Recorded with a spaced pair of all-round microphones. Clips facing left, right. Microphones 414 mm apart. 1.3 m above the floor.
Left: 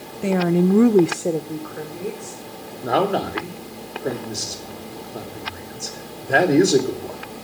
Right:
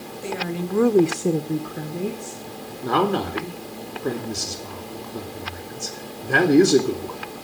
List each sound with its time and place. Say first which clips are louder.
0.2 s a woman speaking: left 11 dB; 80° left, 1.2 m; by 2.7 s 55° right (ahead or behind), 3 m
2.8 s a man speaking: left 1 dB; 15° right (ahead or behind), 3 m